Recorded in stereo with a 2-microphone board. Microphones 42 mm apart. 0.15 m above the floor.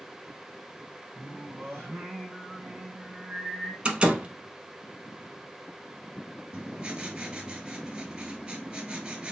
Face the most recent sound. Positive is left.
turn(degrees=-20)  # may be behind; listen again after turning